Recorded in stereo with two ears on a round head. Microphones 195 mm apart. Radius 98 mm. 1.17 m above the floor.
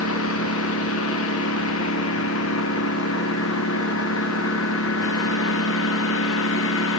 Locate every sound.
0.0 s a lawn mower: 70° left (ahead or behind); by 7.0 s 65° left (ahead or behind)